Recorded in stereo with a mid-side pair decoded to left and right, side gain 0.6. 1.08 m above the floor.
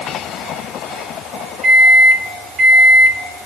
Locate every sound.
1.6 s a microwave: 35° right, 1.3 m